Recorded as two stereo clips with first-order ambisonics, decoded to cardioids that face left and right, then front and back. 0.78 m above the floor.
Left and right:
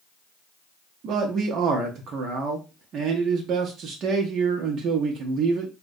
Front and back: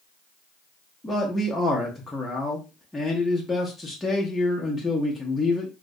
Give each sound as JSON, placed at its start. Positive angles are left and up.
{"t": 1.0, "sound": "a man speaking", "azimuth_deg": -80, "distance_m": 0.6}